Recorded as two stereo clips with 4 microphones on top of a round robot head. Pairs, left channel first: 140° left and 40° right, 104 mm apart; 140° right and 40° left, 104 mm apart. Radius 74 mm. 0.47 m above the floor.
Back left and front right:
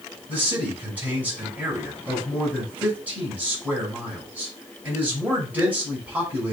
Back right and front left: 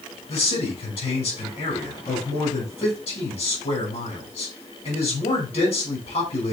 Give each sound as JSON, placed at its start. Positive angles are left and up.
{"t": 0.3, "sound": "a man speaking", "azimuth_deg": -115, "distance_m": 5.0}